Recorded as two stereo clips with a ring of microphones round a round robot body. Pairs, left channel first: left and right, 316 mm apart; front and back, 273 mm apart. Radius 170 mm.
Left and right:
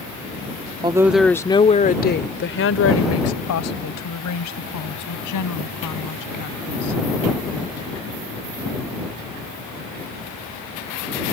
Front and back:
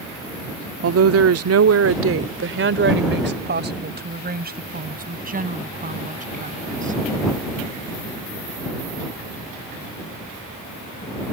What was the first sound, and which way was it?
A woman speaking, 160° right.